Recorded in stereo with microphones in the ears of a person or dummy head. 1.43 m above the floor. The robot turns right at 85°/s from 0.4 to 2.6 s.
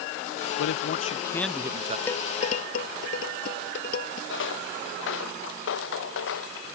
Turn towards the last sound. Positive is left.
turn(degrees=80)